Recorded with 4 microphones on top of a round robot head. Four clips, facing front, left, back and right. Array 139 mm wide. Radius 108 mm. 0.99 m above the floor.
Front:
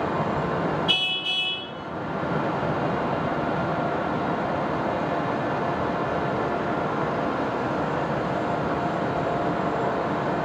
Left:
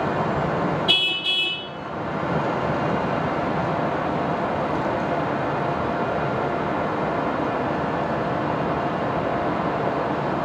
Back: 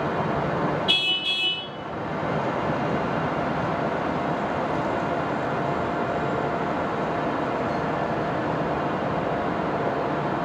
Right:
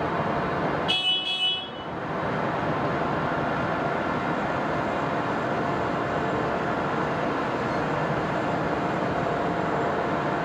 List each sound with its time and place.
0.9 s a car horn: 115° left, 6.5 m